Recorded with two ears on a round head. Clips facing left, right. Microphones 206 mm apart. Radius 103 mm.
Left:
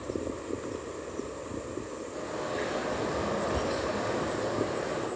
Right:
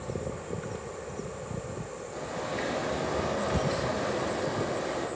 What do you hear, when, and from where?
2.1 s a bird: 5° left (ahead or behind), 9 m